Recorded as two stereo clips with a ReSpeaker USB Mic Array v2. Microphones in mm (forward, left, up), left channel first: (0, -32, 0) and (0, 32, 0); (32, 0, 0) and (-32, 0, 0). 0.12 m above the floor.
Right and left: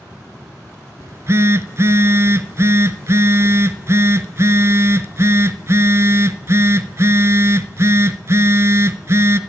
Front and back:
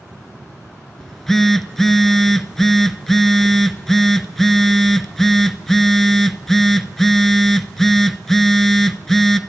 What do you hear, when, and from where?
1.0 s a phone buzzing: 85° left, 0.6 m